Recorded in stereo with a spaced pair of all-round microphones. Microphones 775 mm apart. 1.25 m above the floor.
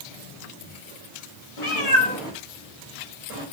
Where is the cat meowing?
50° left (ahead or behind), 0.7 m; by 3.4 s 65° right (ahead or behind), 1.2 m.